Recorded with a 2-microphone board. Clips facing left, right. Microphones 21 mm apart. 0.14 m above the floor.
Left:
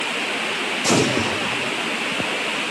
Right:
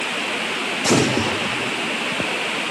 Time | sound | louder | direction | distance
0.8 | an explosion | right 1 dB | 10° right (ahead or behind) | 1.6 m